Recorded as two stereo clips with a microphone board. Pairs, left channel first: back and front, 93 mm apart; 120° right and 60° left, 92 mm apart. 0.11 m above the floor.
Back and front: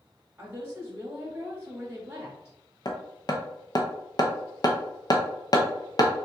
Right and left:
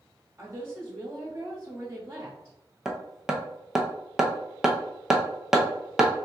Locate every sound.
0.4 s a woman speaking: 50° left, 1.2 m
2.9 s hammering: 145° left, 0.6 m